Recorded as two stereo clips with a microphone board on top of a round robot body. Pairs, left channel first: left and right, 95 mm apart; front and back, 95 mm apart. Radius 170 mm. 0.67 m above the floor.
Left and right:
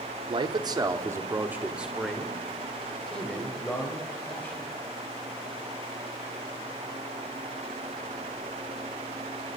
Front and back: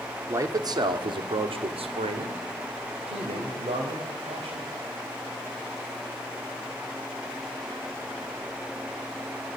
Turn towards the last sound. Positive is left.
turn(degrees=160)